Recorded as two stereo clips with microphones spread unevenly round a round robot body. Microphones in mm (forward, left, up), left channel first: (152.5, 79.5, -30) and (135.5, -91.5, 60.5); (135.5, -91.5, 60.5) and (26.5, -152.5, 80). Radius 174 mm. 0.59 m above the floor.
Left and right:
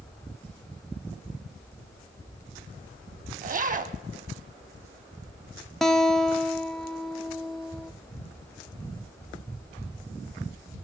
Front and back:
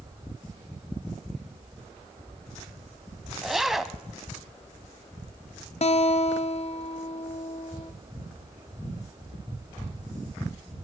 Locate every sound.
3.4 s a zipper: 65° right, 1.2 m
5.8 s a guitar: 10° right, 1.1 m